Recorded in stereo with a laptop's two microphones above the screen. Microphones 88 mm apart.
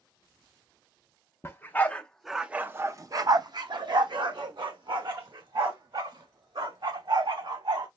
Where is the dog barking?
30° left (ahead or behind), 0.7 m; by 7.9 s 70° right (ahead or behind), 2.5 m.